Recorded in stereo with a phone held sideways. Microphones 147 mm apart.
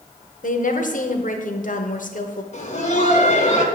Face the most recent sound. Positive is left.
turn(degrees=50)  # may be behind; listen again after turning